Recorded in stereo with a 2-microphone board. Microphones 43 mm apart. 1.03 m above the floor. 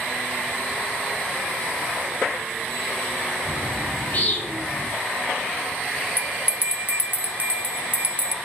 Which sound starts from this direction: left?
A bird, at 3.5 s.